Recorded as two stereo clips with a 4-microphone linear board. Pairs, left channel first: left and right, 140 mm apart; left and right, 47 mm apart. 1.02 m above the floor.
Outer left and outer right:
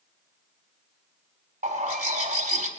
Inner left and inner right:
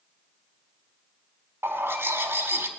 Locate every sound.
1.6 s a bird: 75° right (ahead or behind), 2 m